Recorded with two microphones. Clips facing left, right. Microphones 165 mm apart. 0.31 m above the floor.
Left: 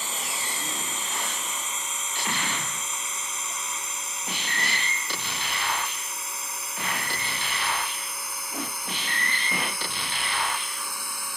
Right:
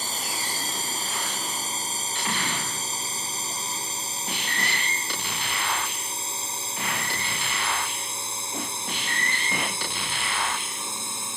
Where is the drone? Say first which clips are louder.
Right 1 dB; 35° right (ahead or behind); by 11.4 s 25° right (ahead or behind).